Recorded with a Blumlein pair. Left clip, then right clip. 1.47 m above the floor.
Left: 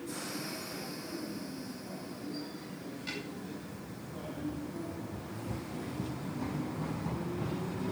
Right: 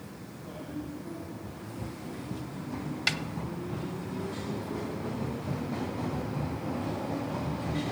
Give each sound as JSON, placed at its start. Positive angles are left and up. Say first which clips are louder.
{"t": 3.1, "sound": "a snare drum", "louder": "right 11 dB", "azimuth_deg": -50, "distance_m": 0.6}